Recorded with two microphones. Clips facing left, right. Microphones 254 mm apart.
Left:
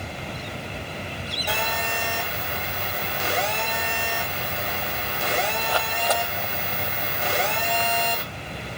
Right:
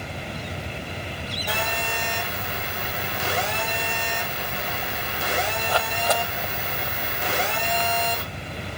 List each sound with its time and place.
1.5 s a phone buzzing: 5° right (ahead or behind), 4.5 m